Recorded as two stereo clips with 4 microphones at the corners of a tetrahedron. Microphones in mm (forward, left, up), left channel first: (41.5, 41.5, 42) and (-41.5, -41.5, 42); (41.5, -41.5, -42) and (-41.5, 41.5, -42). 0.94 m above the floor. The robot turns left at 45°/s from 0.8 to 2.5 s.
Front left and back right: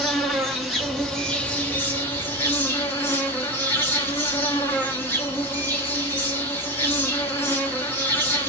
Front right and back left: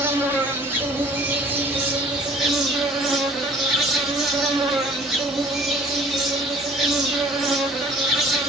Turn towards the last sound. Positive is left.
turn(degrees=55)